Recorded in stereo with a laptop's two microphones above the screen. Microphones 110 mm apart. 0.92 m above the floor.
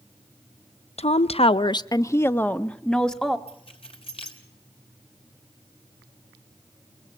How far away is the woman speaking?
About 0.7 m.